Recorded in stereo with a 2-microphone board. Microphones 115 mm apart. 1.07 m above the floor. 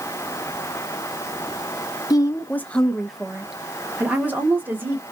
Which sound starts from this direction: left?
A woman speaking, at 2.1 s.